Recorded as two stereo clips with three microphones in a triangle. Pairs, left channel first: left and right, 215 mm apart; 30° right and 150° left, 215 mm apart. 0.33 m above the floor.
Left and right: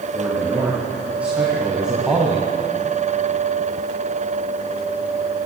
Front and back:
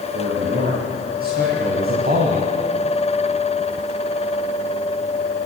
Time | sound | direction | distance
0.1 | a man speaking | 170° right | 5 m